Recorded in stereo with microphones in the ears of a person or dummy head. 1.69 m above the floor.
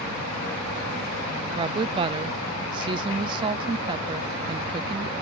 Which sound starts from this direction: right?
A woman speaking, at 1.6 s.